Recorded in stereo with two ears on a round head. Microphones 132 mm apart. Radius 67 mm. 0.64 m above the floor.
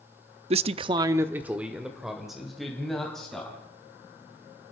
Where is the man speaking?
45° right (ahead or behind), 0.7 m; by 3.6 s 5° left (ahead or behind), 4 m.